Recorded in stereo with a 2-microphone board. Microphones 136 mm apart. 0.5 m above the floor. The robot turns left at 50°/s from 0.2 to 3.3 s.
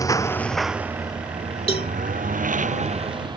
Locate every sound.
0.0 s a lawn mower: 25° left (ahead or behind); by 3.4 s 35° right (ahead or behind)
1.7 s a cowbell: 45° left (ahead or behind); by 1.9 s 50° left (ahead or behind)